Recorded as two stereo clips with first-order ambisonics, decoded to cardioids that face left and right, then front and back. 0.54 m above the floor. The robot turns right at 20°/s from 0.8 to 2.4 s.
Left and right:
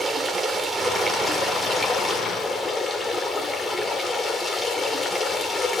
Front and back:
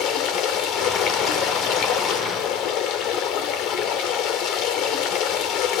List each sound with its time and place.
0.0 s running water: 20° right, 1.7 m; by 5.8 s 15° left, 1.7 m